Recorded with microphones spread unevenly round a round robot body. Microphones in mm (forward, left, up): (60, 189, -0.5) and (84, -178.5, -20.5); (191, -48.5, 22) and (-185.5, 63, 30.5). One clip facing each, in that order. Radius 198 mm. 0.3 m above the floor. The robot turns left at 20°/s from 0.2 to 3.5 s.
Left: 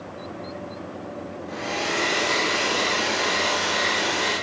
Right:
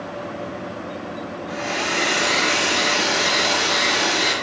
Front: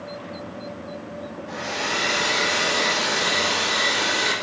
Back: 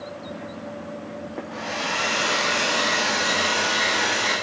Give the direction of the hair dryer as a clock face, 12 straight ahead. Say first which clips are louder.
Right 1 dB, front 1 dB; 1 o'clock.